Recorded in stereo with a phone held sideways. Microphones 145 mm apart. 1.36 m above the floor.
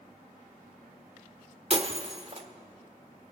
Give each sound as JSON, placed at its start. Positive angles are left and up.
{"t": 1.7, "sound": "breaking glass", "side_deg": -45, "distance_m": 1.3}